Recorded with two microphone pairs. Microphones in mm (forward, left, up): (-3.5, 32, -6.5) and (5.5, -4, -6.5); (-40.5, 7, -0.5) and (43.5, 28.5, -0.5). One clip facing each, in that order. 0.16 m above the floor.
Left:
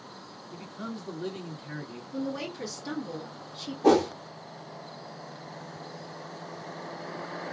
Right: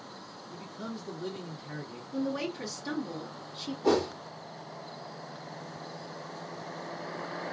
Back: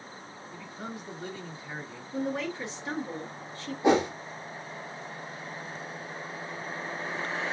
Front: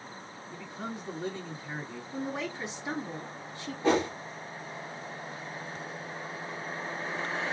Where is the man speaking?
75° left, 2 m.